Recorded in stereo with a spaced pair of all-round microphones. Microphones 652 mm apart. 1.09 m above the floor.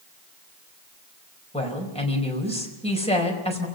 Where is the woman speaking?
10° left (ahead or behind), 4.5 m.